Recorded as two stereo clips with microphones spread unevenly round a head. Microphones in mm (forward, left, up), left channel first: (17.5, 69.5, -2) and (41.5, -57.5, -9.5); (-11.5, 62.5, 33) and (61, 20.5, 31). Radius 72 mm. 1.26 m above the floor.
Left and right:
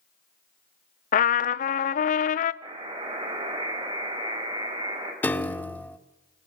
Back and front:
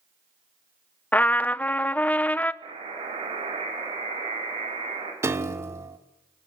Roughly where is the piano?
Ahead left.